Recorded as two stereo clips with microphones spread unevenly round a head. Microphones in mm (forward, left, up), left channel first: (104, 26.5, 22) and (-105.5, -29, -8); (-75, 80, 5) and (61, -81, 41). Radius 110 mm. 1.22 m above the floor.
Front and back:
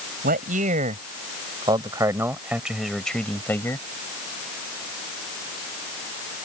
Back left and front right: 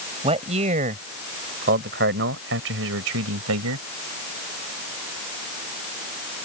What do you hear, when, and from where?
0.2 s a man speaking: 110° right; by 3.8 s 60° right